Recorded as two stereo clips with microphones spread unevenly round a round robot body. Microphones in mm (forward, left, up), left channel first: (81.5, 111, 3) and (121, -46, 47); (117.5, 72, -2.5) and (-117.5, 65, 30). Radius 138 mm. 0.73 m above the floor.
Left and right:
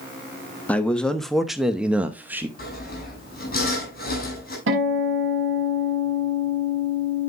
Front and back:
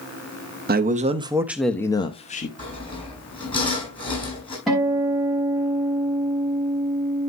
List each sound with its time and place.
0.7 s a man speaking: 155° left, 1.0 m; by 2.5 s 15° left, 1.1 m
2.6 s sawing: 70° left, 7 m
4.7 s a guitar: 90° right, 6 m